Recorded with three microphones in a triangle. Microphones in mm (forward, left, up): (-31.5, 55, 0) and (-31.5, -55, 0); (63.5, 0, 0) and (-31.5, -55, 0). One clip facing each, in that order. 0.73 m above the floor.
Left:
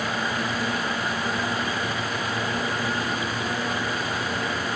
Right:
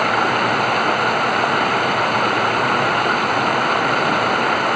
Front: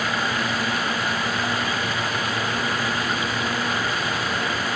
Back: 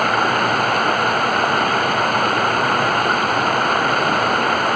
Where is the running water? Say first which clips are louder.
Right 10 dB, back 8 dB; 115° right.